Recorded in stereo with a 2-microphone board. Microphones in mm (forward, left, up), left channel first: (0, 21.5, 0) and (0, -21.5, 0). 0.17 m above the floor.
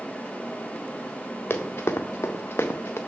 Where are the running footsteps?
65° left (ahead or behind), 1.2 m.